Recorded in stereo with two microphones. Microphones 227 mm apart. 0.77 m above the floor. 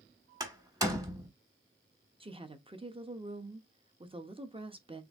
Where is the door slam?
15° right (ahead or behind), 1.2 m.